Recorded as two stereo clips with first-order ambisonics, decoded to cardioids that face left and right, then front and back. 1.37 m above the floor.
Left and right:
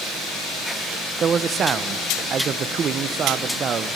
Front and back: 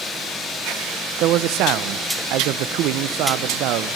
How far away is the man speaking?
About 0.6 m.